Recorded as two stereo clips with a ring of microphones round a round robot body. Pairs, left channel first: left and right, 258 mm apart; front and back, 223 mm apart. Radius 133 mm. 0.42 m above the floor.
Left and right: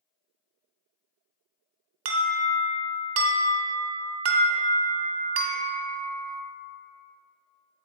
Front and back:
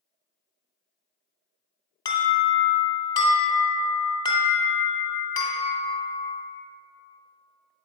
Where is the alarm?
70° right, 1.1 m.